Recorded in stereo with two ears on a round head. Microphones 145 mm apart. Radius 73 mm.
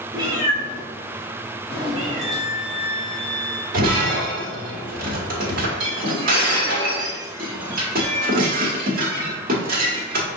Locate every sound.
0.1 s a cat meowing: 25° right (ahead or behind), 1.0 m; by 2.4 s centre (ahead or behind), 2 m
2.2 s a violin: 10° right (ahead or behind), 1.4 m
3.7 s breaking glass: 55° right (ahead or behind), 1.2 m